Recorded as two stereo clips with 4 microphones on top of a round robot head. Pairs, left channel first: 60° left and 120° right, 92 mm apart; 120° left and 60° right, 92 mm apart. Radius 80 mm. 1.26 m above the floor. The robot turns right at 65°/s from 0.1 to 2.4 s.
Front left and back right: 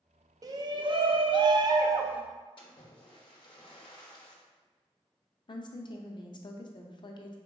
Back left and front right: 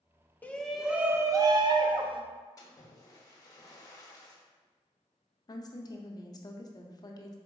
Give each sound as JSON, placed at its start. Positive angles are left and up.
{"t": 0.4, "sound": "a shout", "azimuth_deg": -170, "distance_m": 0.6}
{"t": 2.6, "sound": "a splash", "azimuth_deg": 75, "distance_m": 0.8}
{"t": 5.5, "sound": "a woman speaking", "azimuth_deg": 80, "distance_m": 0.6}